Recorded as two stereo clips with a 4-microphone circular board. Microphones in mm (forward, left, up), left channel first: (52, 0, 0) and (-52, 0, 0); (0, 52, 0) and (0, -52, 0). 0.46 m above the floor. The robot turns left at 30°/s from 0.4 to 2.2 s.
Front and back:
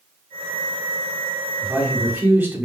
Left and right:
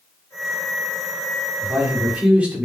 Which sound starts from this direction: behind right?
A man speaking, at 1.6 s.